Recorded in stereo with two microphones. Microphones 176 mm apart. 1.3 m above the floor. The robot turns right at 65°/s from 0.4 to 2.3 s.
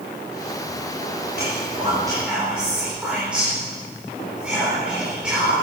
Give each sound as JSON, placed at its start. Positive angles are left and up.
{"t": 1.4, "sound": "whispering", "side_deg": -65, "distance_m": 4.0}